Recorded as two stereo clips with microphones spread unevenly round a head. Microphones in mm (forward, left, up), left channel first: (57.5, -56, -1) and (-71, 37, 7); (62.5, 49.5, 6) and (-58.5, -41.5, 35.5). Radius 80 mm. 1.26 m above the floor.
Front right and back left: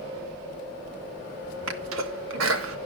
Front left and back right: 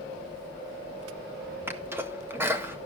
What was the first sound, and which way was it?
A sneeze, 140° left.